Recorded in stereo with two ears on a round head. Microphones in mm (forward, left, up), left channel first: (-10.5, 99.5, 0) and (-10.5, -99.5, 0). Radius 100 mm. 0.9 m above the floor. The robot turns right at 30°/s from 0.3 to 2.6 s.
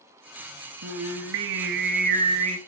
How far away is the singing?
About 0.8 m.